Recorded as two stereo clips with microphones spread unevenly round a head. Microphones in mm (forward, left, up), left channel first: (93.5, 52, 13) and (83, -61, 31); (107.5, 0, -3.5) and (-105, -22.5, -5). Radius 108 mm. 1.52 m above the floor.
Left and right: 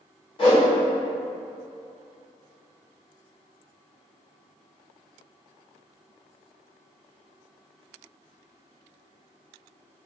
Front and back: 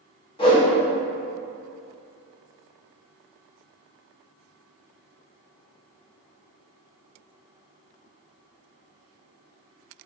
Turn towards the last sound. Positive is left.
turn(degrees=60)